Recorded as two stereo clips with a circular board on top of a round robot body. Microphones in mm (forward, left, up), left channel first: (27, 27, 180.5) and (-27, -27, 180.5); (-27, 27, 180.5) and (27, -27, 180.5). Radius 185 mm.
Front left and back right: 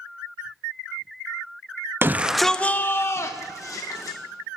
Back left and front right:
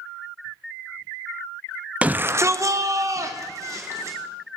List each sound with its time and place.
2.0 s a shout: 105° right, 0.7 m; by 4.2 s 5° left, 1.7 m